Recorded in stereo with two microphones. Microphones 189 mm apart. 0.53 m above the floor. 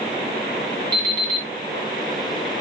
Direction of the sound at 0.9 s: 20° right (ahead or behind).